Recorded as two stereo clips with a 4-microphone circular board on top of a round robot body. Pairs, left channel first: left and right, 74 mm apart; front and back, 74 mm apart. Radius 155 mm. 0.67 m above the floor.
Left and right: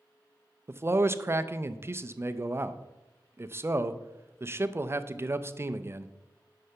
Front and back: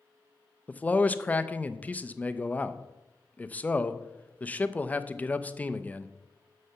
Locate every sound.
0.7 s a man speaking: 60° right, 0.7 m